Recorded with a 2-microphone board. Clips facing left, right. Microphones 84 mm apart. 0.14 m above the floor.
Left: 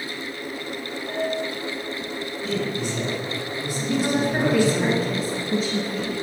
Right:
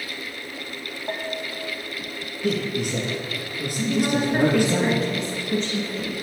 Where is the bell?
45° right (ahead or behind), 2 m.